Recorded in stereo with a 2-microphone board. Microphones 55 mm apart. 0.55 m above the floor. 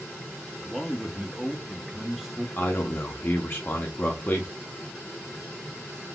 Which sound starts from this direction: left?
A man speaking, at 2.6 s.